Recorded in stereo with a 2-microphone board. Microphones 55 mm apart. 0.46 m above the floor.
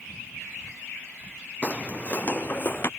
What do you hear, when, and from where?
1.6 s footsteps: 25° left (ahead or behind); by 2.9 s 40° left (ahead or behind)